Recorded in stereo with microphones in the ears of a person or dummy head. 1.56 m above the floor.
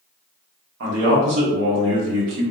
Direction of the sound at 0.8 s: 65° right (ahead or behind).